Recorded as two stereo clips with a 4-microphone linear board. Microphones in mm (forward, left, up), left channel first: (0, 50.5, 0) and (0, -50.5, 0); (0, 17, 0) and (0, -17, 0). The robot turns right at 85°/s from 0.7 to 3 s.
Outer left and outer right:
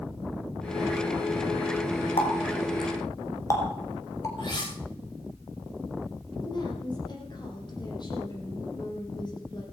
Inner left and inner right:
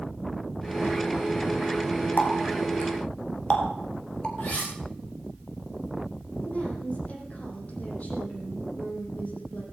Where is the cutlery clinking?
50° left (ahead or behind), 9.5 m.